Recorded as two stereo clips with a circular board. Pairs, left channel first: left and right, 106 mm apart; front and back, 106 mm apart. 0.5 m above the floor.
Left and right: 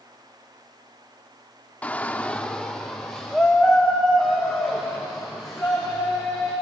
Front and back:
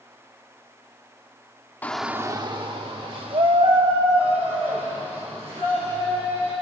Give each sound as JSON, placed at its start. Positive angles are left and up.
{"t": 1.8, "sound": "a shout", "azimuth_deg": 35, "distance_m": 0.7}